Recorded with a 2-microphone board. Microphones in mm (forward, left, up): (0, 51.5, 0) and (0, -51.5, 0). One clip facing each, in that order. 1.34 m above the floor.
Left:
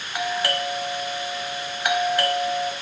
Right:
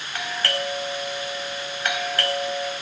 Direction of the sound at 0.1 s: 15° left (ahead or behind).